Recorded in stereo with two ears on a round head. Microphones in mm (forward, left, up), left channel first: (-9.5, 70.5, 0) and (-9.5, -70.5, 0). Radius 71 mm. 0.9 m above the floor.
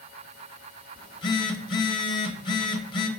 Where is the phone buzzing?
30° left (ahead or behind), 0.9 m.